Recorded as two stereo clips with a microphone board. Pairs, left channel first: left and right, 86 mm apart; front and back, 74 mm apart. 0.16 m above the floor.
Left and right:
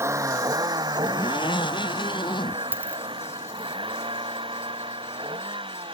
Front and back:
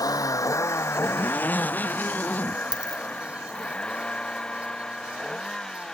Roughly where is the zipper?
Left.